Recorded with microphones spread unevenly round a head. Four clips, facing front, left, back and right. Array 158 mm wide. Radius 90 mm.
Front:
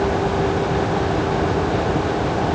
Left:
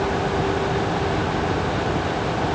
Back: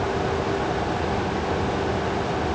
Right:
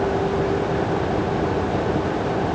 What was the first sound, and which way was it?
Only background noise.